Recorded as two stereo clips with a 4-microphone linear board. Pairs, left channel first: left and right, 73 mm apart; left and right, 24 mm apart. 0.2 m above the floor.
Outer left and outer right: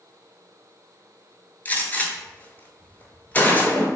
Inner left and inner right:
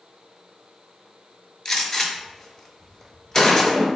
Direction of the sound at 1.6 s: 25° left (ahead or behind).